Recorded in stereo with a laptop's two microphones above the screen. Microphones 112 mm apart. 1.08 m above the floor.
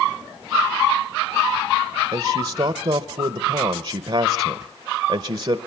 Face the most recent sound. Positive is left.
turn(degrees=-60)  # may be behind; listen again after turning